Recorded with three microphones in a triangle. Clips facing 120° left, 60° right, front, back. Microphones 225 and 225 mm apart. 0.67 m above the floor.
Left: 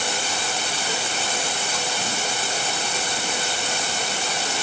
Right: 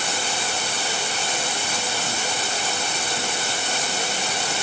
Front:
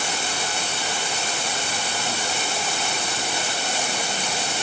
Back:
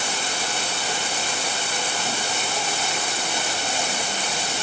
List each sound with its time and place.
Only background noise.